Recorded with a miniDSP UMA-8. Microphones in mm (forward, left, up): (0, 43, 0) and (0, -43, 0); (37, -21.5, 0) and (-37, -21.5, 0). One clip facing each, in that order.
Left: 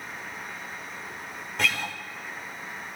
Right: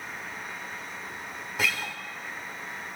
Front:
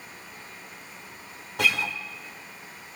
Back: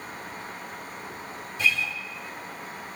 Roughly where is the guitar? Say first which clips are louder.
Left 2 dB, front 1 dB; ahead.